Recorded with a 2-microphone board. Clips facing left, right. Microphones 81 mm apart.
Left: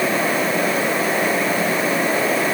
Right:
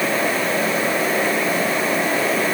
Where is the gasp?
No gasp in this recording.